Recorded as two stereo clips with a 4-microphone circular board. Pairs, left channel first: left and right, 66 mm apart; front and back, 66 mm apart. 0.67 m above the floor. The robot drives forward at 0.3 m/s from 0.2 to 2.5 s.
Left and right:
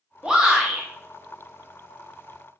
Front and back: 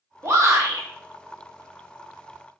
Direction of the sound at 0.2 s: 165° right.